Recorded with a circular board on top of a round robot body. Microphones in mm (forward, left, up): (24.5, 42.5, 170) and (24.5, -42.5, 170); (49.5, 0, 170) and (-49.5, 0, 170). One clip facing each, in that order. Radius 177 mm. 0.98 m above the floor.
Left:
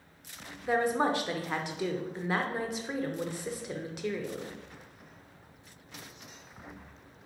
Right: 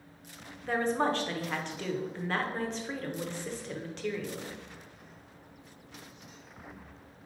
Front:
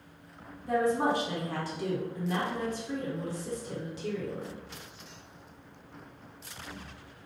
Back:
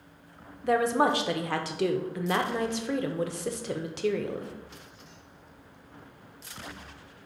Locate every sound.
0.6 s a woman speaking: 170° left, 0.6 m